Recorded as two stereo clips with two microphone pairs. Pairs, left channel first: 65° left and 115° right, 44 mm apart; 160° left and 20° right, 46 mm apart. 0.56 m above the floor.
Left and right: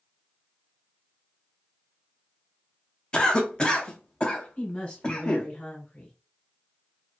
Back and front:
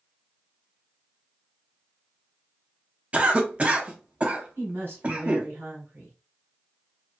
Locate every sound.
3.1 s a cough: 30° left, 0.7 m
4.6 s a woman speaking: 10° left, 1.3 m